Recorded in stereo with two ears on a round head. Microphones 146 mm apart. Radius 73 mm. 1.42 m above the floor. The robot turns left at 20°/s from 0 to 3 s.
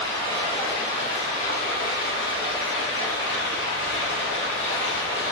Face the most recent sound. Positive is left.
turn(degrees=100)